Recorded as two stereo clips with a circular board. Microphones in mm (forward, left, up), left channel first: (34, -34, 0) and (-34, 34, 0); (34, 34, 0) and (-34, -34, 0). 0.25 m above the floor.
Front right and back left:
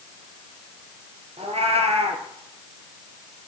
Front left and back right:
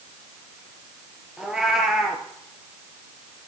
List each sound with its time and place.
1.4 s a cat meowing: 140° left, 1.6 m